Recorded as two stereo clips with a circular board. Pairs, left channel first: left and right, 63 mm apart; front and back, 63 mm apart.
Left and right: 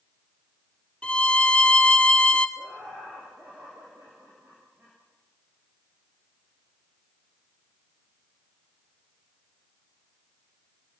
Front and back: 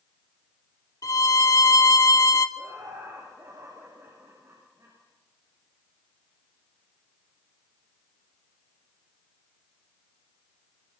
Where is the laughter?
150° right, 8 m.